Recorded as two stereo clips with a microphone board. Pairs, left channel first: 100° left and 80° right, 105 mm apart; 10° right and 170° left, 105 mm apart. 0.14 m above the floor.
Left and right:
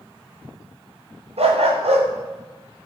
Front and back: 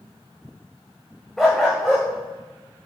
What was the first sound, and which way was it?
A dog barking, 100° right.